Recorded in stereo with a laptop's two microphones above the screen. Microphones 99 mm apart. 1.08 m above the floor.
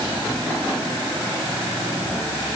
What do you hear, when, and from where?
Only background noise.